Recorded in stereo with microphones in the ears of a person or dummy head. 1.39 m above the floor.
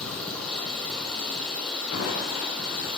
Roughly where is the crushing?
Left.